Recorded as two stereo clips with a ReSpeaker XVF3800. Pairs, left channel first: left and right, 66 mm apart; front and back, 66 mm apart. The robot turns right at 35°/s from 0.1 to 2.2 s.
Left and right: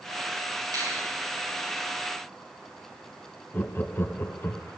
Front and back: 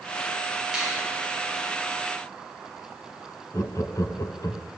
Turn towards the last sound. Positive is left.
turn(degrees=35)